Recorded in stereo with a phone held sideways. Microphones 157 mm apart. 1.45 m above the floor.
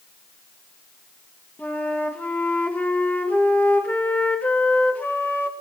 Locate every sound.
1.6 s a flute: 10° left (ahead or behind), 1.3 m